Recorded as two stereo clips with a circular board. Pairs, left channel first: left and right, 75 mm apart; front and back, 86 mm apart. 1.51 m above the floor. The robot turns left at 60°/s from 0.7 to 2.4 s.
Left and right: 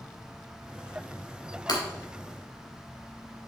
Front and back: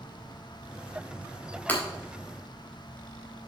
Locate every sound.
1.7 s breaking glass: 70° left, 3.5 m; by 1.8 s 60° left, 3.5 m